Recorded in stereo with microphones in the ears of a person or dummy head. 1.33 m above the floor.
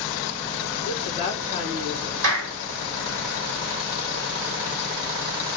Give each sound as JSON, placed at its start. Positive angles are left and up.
{"t": 0.8, "sound": "a woman speaking", "side_deg": -35, "distance_m": 2.5}
{"t": 2.2, "sound": "a clap", "side_deg": -75, "distance_m": 1.7}